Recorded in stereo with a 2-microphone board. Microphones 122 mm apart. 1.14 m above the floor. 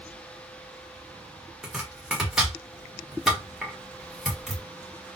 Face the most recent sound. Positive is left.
turn(degrees=-5)  # may be behind; listen again after turning